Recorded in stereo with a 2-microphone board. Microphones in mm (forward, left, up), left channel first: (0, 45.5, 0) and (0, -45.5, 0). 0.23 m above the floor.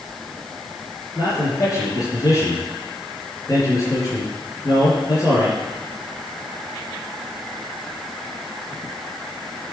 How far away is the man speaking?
About 4.5 m.